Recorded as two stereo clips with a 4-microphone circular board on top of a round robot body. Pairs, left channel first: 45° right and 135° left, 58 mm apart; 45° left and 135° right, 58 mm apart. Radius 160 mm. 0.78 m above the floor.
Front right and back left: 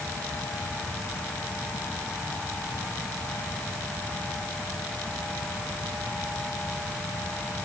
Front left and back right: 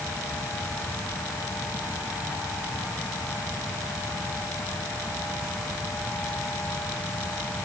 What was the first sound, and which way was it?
Only background noise.